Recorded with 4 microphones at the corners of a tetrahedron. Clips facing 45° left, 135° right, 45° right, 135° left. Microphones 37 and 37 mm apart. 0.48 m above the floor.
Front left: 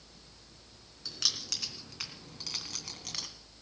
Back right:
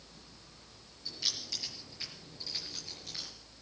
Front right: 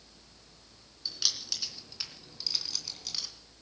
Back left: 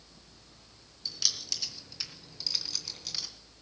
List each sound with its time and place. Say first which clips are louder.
1.1 s keys jangling: front left 2 dB, front right 1 dB; 35° left, 3.5 m; by 3.3 s 55° left, 2.5 m